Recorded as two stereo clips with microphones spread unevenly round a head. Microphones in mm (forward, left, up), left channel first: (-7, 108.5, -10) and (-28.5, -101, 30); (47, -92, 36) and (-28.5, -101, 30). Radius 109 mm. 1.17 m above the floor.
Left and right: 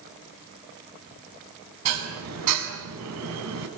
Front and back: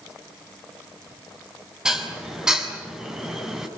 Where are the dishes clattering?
90° right, 7 m.